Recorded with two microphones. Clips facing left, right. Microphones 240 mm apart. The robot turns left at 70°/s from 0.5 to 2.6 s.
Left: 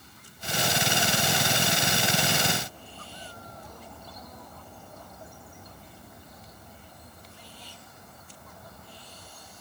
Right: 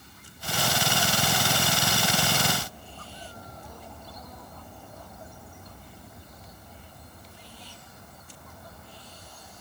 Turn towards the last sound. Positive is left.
No sound to turn to.